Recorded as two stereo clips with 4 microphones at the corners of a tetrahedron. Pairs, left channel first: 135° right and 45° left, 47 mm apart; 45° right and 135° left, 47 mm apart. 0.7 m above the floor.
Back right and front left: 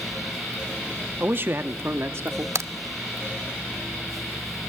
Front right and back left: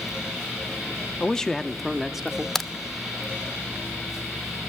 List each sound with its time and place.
1.2 s a man speaking: 20° left, 0.9 m; by 2.5 s 55° left, 1.5 m
2.5 s a crack: 40° left, 0.5 m